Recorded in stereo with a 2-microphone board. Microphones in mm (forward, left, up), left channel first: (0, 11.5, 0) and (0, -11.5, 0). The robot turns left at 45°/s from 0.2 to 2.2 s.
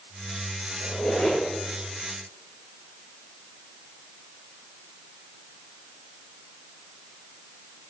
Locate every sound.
0.8 s a squeak: 45° left (ahead or behind), 6.5 m; by 1.4 s 75° left (ahead or behind), 6.5 m